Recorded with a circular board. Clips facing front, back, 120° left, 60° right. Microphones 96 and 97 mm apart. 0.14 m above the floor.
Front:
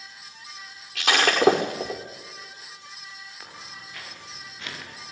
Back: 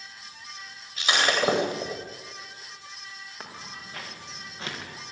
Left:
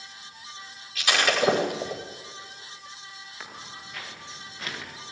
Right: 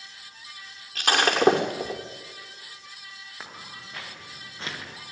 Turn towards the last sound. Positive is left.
turn(degrees=-120)